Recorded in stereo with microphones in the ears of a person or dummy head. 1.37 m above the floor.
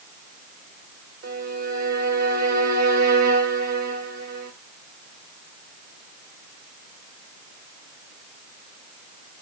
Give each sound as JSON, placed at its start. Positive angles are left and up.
{"t": 1.2, "sound": "a violin", "side_deg": -50, "distance_m": 1.3}